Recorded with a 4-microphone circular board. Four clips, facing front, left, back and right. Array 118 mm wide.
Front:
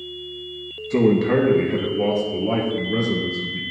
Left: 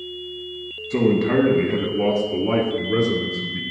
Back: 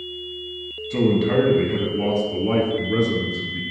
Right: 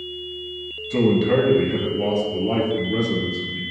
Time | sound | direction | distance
0.9 | a man speaking | 20° left | 1.2 m